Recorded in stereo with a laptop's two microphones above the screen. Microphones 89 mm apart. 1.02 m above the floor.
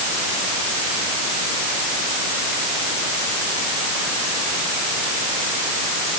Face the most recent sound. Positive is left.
No sound to turn to.